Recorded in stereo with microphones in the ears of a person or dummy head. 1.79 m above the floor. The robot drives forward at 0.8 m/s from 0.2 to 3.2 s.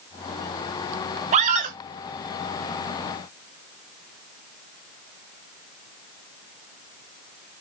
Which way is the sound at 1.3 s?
40° right (ahead or behind).